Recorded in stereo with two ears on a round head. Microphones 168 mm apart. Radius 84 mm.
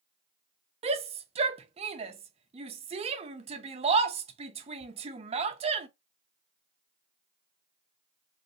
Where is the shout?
30° right (ahead or behind), 0.6 m.